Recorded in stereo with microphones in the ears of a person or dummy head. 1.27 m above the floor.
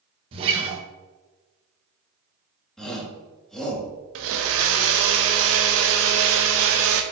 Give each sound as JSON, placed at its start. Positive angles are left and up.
{"t": 0.3, "sound": "a guitar", "side_deg": -30, "distance_m": 1.6}
{"t": 2.8, "sound": "a shout", "side_deg": 0, "distance_m": 2.5}
{"t": 4.2, "sound": "a blender", "side_deg": -65, "distance_m": 1.1}